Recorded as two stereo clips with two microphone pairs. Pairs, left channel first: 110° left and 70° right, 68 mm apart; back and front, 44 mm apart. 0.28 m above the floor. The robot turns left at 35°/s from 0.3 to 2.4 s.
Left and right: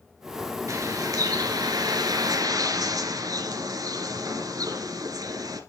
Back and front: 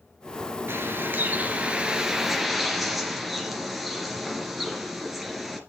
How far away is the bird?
About 1.9 m.